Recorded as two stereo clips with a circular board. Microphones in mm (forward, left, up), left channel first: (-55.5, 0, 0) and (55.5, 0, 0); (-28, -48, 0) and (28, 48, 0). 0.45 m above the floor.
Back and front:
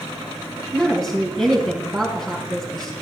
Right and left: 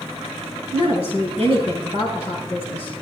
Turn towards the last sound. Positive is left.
turn(degrees=-90)